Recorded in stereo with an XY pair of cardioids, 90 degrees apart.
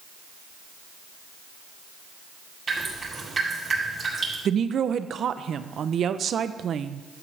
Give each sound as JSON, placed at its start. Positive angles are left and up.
{"t": 2.7, "sound": "dripping", "azimuth_deg": -35, "distance_m": 6.0}
{"t": 4.5, "sound": "a woman speaking", "azimuth_deg": -60, "distance_m": 0.7}